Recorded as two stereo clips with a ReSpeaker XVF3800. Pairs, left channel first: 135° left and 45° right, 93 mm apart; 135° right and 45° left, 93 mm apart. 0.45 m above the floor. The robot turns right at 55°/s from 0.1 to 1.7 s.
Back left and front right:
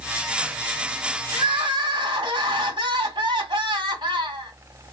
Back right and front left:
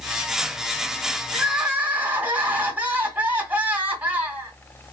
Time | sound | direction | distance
1.3 | crying | 45° right | 1.5 m